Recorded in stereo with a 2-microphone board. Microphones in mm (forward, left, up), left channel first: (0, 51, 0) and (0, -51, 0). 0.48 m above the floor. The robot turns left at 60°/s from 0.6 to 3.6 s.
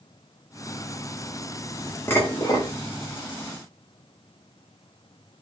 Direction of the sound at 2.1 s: 150° left.